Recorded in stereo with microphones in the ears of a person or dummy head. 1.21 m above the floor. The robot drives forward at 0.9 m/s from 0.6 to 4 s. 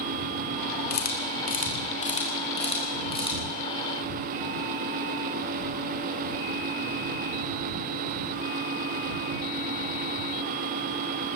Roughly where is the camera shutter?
Left.